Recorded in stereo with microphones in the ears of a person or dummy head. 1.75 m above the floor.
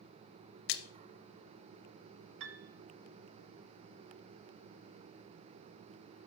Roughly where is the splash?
Left.